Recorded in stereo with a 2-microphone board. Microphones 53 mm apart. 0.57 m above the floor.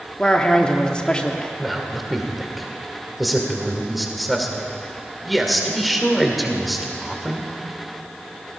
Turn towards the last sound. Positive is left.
turn(degrees=0)  # may be behind; listen again after turning